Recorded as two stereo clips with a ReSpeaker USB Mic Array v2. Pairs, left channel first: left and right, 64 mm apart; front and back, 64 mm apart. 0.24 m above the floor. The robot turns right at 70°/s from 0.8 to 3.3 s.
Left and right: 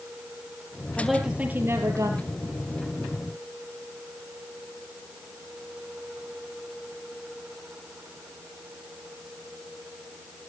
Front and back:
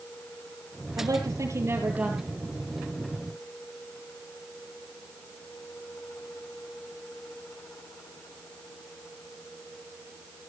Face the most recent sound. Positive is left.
turn(degrees=-25)